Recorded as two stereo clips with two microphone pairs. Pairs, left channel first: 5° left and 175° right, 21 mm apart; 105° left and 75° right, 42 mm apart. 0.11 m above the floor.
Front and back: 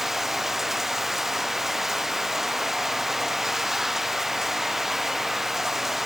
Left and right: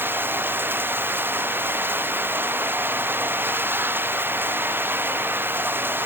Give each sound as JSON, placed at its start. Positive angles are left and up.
{"t": 0.0, "sound": "running water", "azimuth_deg": -105}